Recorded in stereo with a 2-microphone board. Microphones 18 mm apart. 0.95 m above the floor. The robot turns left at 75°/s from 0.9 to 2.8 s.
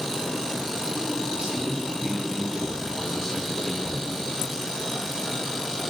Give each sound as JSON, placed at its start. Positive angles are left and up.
{"t": 1.3, "sound": "a man speaking", "azimuth_deg": -100, "distance_m": 6.0}